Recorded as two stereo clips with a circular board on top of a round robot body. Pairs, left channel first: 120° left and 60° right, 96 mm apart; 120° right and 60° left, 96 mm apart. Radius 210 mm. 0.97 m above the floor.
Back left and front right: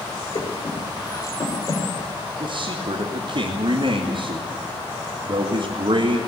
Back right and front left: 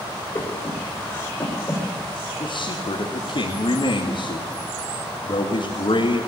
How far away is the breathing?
About 5.5 m.